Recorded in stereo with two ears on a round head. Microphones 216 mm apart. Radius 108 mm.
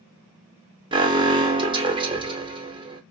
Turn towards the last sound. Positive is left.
turn(degrees=-20)  # may be behind; listen again after turning